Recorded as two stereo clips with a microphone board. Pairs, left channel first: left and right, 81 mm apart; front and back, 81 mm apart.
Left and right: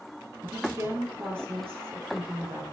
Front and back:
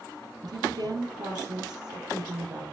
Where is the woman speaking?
150° right, 3.5 m.